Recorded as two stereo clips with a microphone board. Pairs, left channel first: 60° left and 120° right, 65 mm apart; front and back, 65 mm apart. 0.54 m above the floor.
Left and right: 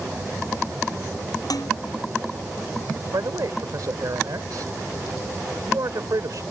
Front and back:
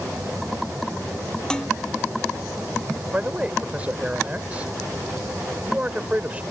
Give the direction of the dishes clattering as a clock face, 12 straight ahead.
9 o'clock.